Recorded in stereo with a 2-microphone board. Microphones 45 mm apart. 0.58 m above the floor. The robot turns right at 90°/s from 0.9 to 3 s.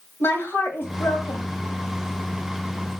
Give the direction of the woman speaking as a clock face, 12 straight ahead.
10 o'clock.